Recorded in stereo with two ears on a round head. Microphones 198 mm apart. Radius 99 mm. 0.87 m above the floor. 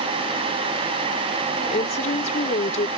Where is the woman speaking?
35° left (ahead or behind).